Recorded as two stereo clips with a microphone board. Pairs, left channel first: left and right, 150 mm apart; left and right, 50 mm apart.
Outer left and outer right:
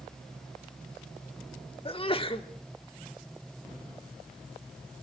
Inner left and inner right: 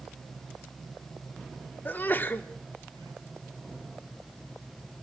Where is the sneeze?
40° left (ahead or behind), 1.6 m.